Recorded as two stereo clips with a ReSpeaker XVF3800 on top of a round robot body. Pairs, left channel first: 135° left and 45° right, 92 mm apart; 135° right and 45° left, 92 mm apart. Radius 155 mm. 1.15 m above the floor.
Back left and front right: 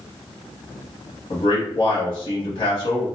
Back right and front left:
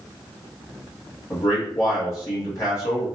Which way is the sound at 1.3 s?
165° left.